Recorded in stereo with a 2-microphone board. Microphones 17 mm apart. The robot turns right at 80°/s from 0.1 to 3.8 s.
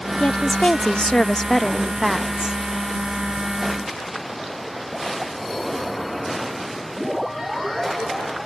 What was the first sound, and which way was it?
A woman speaking, 50° left.